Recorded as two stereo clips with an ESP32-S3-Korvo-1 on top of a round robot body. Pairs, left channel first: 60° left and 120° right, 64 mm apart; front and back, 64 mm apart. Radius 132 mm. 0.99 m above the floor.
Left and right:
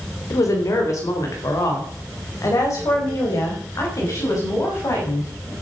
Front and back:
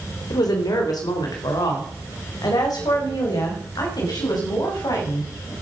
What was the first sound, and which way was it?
A woman speaking, 20° left.